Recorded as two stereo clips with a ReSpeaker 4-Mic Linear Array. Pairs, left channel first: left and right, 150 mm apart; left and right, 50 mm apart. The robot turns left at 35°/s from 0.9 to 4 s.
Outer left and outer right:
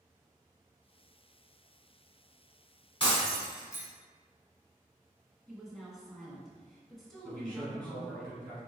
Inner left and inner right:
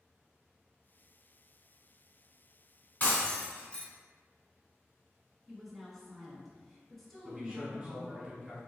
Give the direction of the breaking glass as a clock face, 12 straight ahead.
10 o'clock.